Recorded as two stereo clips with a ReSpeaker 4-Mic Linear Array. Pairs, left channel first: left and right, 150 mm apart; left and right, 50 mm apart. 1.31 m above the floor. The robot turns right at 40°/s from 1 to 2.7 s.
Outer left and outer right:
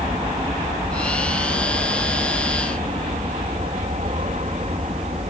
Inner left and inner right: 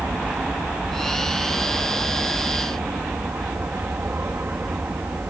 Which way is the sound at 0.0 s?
125° right.